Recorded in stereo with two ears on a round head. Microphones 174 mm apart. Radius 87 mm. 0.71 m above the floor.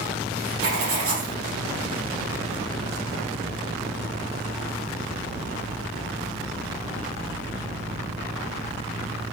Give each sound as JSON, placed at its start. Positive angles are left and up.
{"t": 0.6, "sound": "writing", "side_deg": -75, "distance_m": 3.0}